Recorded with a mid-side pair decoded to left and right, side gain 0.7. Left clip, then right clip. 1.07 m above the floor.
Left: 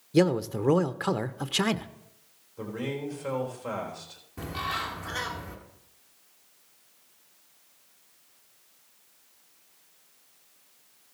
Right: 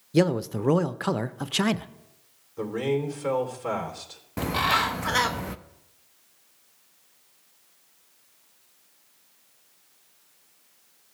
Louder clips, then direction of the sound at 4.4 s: Right 9 dB; 70° right.